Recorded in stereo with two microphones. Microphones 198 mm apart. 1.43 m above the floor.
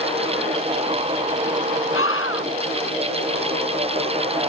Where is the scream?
80° left.